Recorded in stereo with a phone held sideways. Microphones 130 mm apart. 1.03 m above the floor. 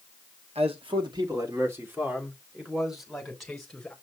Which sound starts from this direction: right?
A man speaking, at 0.6 s.